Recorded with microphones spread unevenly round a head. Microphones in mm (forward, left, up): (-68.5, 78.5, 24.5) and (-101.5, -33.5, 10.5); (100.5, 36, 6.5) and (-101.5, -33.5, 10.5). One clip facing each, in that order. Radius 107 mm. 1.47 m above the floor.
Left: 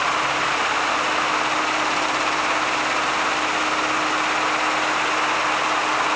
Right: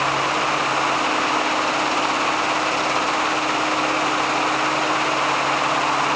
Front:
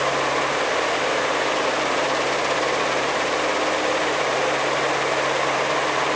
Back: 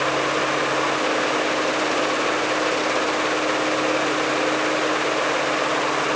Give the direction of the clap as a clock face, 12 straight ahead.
I don't hear a clap.